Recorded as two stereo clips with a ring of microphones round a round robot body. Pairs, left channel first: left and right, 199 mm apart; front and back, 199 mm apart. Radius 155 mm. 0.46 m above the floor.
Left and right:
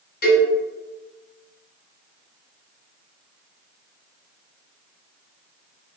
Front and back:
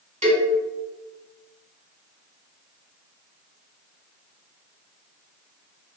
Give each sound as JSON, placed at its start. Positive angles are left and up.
{"t": 0.2, "sound": "a cowbell", "azimuth_deg": 130, "distance_m": 1.8}